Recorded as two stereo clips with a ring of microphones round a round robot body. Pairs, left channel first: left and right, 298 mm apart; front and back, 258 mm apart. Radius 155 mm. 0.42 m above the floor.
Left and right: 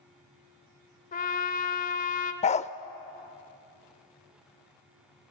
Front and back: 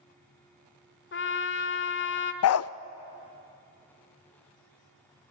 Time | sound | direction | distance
1.1 | a trumpet | 30° left | 1.3 m
2.4 | a dog barking | 25° left | 0.5 m